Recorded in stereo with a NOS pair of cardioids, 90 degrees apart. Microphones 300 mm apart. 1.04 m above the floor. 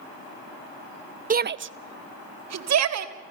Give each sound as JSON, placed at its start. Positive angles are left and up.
{"t": 1.3, "sound": "a shout", "azimuth_deg": -25, "distance_m": 0.7}